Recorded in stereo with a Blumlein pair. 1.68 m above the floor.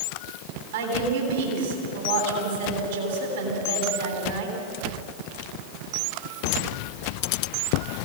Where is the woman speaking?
55° right, 10 m.